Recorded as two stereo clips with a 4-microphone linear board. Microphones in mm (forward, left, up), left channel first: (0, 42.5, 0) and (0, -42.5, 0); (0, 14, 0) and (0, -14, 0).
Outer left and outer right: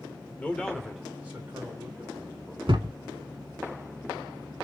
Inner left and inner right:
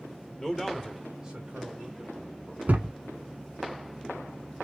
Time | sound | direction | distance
0.4 | a man speaking | 20° left (ahead or behind) | 1.0 m
2.7 | a thud | 85° right | 0.8 m